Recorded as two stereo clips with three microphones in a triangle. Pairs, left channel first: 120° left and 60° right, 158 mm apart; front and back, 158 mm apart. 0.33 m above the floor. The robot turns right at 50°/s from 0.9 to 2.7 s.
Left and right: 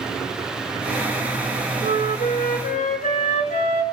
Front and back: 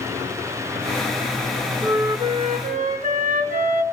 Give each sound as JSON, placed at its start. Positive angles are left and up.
{"t": 1.8, "sound": "a flute", "azimuth_deg": 110, "distance_m": 1.7}